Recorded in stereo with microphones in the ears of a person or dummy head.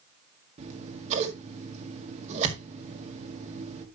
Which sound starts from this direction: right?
Scissors, at 0.6 s.